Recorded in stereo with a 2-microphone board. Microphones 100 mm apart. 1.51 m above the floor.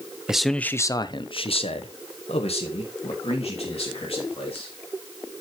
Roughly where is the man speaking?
Centre.